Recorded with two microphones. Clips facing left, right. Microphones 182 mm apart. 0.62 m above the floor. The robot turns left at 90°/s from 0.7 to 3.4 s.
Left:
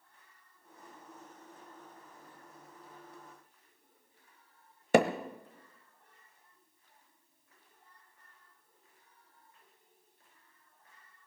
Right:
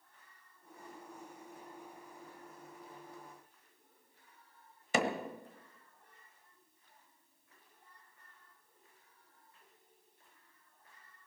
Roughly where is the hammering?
Left.